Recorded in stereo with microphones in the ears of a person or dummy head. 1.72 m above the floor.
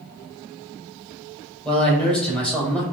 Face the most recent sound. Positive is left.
turn(degrees=10)  # may be behind; listen again after turning